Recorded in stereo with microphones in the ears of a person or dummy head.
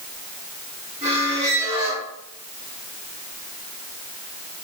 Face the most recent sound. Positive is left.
turn(degrees=-45)  # may be behind; listen again after turning